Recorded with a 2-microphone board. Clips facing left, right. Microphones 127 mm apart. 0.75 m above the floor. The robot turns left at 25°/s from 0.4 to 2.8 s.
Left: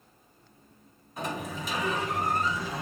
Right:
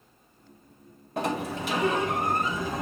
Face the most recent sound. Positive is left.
turn(degrees=-130)